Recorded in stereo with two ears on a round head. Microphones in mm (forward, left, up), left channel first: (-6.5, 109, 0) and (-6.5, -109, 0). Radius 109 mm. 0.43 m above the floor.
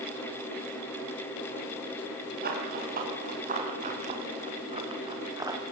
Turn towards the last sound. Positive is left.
turn(degrees=-15)  # may be behind; listen again after turning